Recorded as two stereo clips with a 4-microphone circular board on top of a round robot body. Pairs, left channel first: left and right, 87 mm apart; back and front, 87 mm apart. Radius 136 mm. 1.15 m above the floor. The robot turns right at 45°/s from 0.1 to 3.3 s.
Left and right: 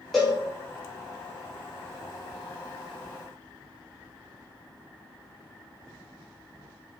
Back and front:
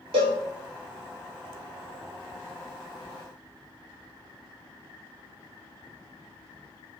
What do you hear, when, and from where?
0.1 s a cowbell: 5° left, 0.7 m; by 0.4 s 15° left, 0.7 m